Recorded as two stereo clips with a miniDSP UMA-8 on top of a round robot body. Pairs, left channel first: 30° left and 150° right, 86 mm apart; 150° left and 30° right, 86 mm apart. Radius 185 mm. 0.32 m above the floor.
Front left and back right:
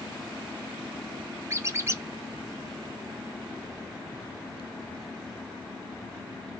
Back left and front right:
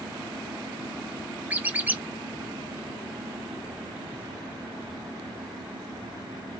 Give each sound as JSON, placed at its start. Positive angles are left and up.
{"t": 1.5, "sound": "a squeak", "azimuth_deg": -95, "distance_m": 0.8}